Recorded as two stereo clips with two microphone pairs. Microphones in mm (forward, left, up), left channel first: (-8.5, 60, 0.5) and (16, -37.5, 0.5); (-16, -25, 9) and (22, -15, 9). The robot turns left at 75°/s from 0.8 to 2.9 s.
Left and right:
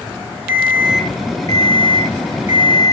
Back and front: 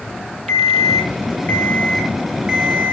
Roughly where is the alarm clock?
Behind right.